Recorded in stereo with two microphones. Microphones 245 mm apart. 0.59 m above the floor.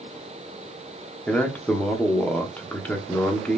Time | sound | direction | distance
1.3 | a man speaking | 5° left (ahead or behind) | 1.0 m